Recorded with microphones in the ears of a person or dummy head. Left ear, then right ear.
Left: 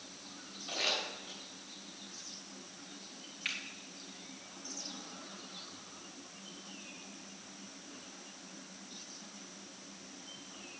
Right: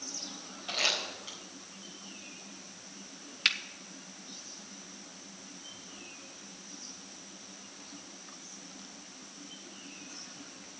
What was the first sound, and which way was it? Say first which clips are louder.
Crumpling: right 4 dB; 25° right (ahead or behind).